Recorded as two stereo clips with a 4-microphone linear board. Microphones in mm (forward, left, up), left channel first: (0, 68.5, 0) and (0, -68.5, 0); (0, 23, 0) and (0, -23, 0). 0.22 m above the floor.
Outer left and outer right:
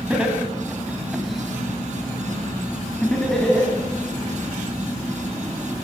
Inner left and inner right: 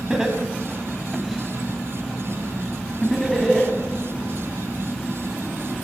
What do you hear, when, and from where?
0.1 s laughter: 10° right (ahead or behind), 1.5 m; by 3.7 s 5° left (ahead or behind), 1.8 m